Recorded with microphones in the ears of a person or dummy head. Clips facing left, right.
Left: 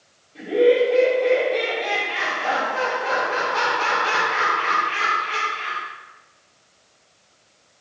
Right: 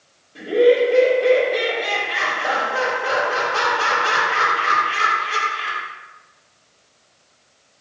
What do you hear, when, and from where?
0.3 s laughter: 5° right (ahead or behind), 2.5 m